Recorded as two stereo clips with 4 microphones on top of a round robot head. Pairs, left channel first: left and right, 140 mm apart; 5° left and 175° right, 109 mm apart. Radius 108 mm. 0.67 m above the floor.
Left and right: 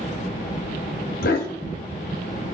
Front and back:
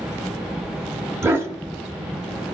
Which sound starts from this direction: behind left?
A dog barking, at 1.2 s.